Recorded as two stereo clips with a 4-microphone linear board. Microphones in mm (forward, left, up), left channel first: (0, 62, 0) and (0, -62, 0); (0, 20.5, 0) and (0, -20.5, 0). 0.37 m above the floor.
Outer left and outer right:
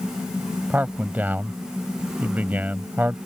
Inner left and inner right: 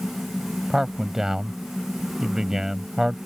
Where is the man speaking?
15° right (ahead or behind).